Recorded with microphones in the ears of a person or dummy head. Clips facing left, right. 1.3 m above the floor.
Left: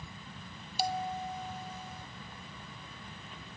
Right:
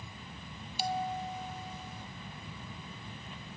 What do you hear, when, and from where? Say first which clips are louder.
0.8 s a bell: even; 35° left (ahead or behind), 0.5 m